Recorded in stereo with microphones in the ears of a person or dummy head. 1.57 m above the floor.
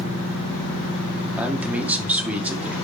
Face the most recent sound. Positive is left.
turn(degrees=-5)  # may be behind; listen again after turning